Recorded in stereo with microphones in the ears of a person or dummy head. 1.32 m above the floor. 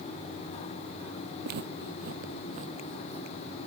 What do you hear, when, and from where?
1.4 s footsteps: 60° right (ahead or behind); by 3.7 s 30° right (ahead or behind)